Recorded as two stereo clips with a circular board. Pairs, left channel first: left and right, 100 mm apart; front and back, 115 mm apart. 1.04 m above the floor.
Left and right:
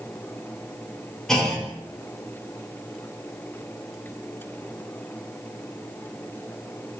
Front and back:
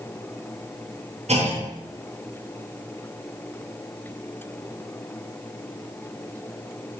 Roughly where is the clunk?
Behind.